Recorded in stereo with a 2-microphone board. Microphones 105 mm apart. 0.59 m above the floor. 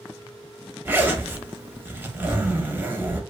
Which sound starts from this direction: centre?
A zipper, at 0.8 s.